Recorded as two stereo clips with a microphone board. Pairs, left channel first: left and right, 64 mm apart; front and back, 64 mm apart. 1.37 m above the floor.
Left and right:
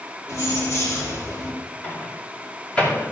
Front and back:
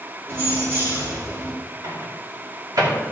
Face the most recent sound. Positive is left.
turn(degrees=160)